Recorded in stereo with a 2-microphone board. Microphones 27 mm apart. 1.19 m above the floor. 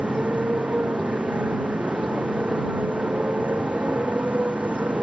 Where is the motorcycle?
85° right.